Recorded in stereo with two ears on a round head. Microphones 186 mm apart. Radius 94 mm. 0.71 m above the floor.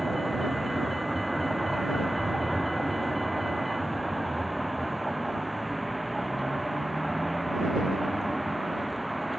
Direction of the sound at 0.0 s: Centre (ahead or behind).